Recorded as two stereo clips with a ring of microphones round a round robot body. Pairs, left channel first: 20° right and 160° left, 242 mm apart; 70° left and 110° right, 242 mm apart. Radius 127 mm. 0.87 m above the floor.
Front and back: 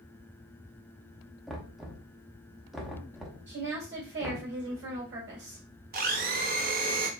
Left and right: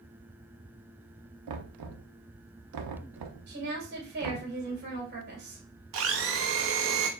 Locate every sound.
1.5 s knocking: 115° right, 0.7 m
3.5 s a woman speaking: 155° right, 3 m
5.9 s a blender: 150° right, 0.8 m